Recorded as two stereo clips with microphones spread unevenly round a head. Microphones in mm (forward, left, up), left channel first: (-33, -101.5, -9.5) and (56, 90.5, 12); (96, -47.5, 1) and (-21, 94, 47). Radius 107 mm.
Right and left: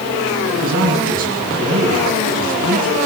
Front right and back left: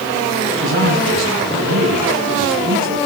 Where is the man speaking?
115° left, 8.5 m.